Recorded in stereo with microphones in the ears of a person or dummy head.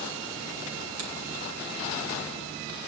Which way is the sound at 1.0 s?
85° right.